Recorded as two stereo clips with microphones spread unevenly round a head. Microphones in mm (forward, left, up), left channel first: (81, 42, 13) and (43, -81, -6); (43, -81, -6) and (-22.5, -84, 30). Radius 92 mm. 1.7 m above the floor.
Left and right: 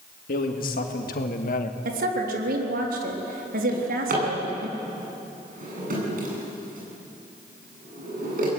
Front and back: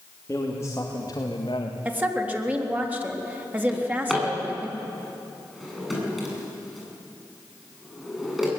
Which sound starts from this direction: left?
A man speaking, at 0.3 s.